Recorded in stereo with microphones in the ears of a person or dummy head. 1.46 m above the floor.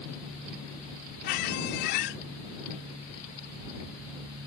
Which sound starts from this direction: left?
A squeak, at 1.2 s.